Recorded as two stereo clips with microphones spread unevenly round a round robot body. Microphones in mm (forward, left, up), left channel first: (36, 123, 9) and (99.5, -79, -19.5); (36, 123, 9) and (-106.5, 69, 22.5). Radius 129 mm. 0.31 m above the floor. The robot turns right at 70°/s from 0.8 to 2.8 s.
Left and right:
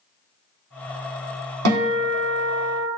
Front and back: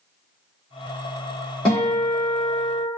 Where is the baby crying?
No baby crying in this recording.